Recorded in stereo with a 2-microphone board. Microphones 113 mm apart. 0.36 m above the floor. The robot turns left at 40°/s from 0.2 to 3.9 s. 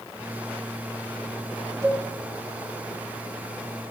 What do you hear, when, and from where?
1.8 s a cowbell: 25° right (ahead or behind), 2.5 m; by 2.0 s 20° right (ahead or behind), 2.5 m